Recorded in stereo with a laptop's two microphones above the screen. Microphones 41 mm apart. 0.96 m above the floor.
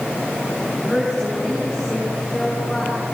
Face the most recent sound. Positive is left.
turn(degrees=10)  # may be behind; listen again after turning